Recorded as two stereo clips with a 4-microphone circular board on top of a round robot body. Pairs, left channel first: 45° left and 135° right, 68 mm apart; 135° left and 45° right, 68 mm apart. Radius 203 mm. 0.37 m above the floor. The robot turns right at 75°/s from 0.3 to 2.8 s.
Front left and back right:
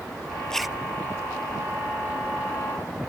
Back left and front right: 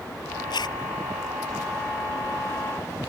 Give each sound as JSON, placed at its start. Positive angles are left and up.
{"t": 0.5, "sound": "a zipper", "azimuth_deg": 125}